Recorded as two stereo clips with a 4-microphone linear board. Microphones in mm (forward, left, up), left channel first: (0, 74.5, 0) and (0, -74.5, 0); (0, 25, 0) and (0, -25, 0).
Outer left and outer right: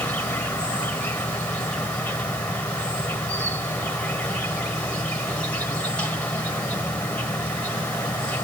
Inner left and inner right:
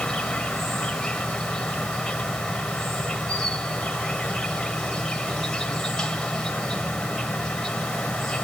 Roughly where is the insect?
Centre.